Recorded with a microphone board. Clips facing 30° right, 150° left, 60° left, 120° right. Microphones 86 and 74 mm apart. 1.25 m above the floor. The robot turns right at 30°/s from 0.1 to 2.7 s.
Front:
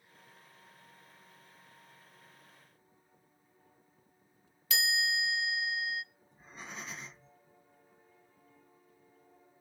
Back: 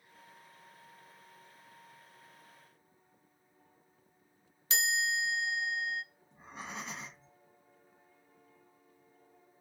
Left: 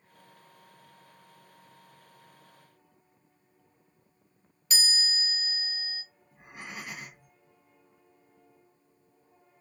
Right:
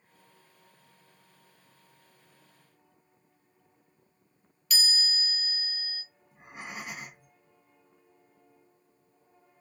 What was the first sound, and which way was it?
A chime, 105° left.